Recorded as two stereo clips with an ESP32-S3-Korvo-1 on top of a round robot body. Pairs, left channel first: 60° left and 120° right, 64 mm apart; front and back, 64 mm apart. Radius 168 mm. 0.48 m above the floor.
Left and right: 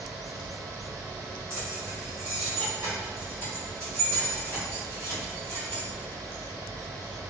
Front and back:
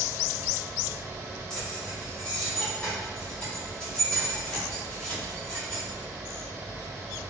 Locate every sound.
1.5 s keys jangling: 80° right, 1.7 m